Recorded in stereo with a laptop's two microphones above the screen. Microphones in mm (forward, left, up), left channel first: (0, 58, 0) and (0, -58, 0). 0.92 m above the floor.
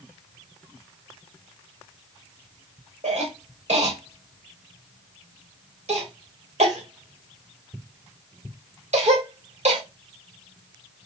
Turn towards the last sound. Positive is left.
turn(degrees=-70)  # may be behind; listen again after turning